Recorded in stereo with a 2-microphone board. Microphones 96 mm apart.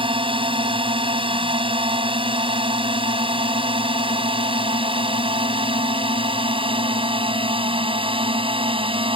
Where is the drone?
65° right (ahead or behind).